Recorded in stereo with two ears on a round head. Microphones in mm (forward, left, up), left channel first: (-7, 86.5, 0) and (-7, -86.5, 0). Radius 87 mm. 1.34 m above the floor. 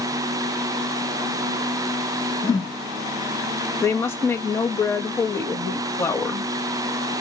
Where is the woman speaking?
15° left (ahead or behind), 1.7 m.